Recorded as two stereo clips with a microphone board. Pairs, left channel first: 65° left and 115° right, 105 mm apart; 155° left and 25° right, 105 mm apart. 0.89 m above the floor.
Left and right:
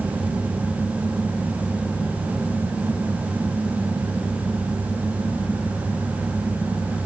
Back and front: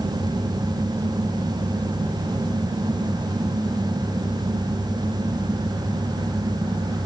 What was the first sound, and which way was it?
Only background noise.